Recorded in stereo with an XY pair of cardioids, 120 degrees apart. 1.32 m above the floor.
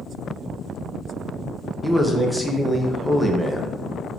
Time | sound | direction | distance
1.8 | a man speaking | straight ahead | 0.6 m